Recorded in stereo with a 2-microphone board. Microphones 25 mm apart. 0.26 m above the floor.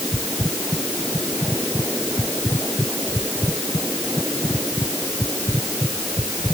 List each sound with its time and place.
Only background noise.